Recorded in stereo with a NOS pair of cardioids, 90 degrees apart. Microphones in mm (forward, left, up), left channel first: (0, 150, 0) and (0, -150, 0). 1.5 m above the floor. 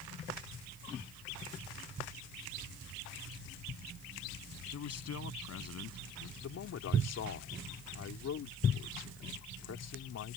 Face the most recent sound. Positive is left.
turn(degrees=60)